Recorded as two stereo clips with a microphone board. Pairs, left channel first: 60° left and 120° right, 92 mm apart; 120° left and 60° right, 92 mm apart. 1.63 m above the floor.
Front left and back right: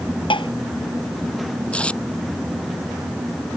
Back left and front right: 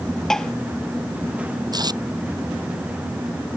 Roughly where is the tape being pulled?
Ahead.